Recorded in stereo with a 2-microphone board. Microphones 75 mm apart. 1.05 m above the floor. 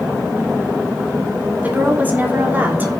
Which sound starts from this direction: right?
A woman speaking, at 1.6 s.